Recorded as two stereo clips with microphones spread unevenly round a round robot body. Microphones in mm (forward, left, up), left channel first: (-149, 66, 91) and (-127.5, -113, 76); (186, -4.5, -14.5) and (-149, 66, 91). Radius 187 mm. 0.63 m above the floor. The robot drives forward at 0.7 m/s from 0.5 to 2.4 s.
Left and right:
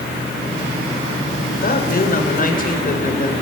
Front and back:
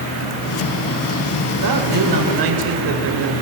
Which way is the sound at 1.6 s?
130° left.